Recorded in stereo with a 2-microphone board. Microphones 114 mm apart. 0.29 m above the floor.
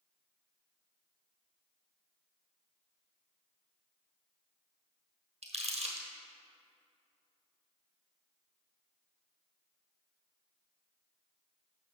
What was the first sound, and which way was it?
Crumpling, 70° right (ahead or behind).